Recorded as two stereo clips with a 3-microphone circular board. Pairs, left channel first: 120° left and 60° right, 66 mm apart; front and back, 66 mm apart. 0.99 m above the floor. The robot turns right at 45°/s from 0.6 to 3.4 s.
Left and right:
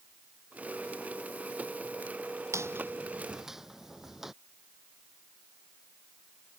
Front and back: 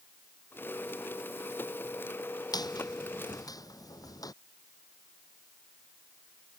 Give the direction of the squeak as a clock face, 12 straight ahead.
12 o'clock.